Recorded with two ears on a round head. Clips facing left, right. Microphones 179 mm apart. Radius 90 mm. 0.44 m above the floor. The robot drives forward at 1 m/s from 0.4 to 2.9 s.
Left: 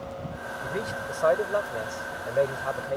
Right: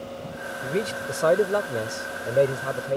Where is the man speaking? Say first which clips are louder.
Right 6 dB; 35° right (ahead or behind).